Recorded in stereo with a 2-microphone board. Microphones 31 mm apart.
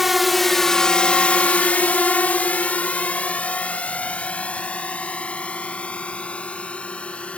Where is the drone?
5° right (ahead or behind); by 7.4 s 40° left (ahead or behind).